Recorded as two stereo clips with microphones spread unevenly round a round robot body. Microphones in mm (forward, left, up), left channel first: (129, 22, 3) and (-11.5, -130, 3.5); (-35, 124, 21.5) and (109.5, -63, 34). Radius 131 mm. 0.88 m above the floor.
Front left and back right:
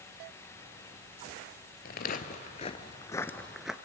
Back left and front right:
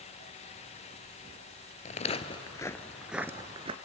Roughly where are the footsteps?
Left.